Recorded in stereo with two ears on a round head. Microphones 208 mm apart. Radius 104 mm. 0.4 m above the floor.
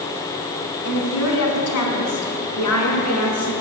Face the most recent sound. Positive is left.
turn(degrees=75)  # may be behind; listen again after turning